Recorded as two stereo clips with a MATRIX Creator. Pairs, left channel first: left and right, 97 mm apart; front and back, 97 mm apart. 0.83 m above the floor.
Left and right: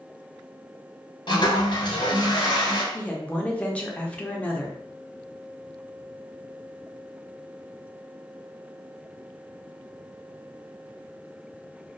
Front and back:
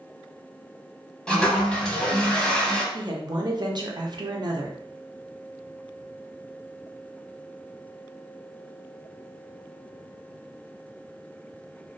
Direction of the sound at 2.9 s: 165° left.